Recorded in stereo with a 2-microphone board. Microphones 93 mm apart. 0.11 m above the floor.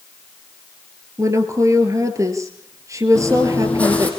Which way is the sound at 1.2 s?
35° right (ahead or behind).